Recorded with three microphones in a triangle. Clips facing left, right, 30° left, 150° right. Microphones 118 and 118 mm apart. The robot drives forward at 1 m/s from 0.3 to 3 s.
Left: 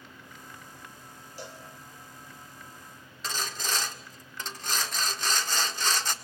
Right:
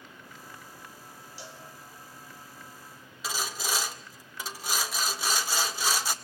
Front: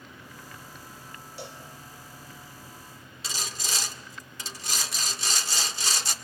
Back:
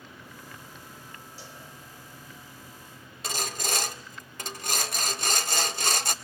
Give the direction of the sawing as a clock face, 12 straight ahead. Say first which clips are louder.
Right 1 dB, back 5 dB; 6 o'clock.